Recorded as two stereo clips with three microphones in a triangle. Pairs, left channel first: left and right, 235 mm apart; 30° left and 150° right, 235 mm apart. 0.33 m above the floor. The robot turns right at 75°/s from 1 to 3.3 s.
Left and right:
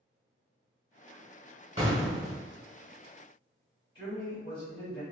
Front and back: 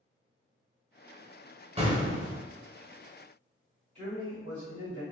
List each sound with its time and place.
1.8 s an explosion: 120° right, 1.0 m; by 2.4 s 75° right, 1.0 m
4.0 s a man speaking: 155° left, 1.6 m